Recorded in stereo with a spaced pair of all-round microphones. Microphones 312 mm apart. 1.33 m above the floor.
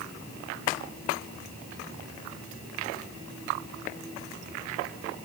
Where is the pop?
I don't hear a pop.